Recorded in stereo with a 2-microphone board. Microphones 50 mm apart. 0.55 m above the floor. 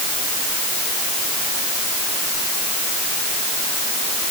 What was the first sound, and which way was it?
Only background noise.